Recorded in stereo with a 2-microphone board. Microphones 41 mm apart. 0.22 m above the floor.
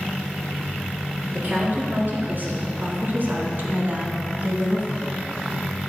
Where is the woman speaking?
50° right (ahead or behind), 2.5 m; by 5.2 s 35° right (ahead or behind), 1.4 m.